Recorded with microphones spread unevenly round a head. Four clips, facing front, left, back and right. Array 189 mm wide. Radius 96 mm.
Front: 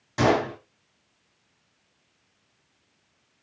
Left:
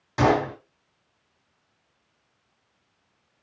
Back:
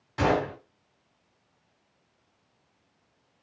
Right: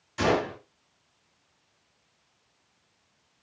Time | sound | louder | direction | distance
0.2 | a gunshot | left 4 dB, front 3 dB | 60° left | 3 m